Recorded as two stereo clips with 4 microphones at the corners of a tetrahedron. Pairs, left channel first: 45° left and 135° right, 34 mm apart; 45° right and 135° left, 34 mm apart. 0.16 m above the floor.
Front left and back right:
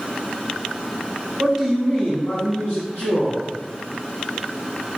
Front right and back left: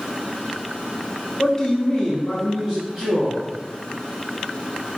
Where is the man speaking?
90° right, 1.1 m; by 3.4 s 45° left, 2.5 m.